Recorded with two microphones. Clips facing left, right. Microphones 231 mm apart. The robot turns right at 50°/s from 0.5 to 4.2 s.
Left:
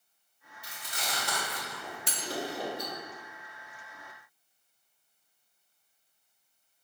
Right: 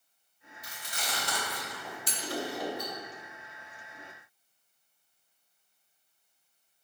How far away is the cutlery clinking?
About 0.5 m.